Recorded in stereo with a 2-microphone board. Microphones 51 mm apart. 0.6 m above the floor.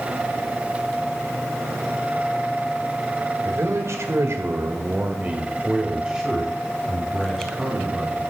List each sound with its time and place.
3.4 s a man speaking: 70° right (ahead or behind), 2 m; by 8.2 s 10° left (ahead or behind), 4 m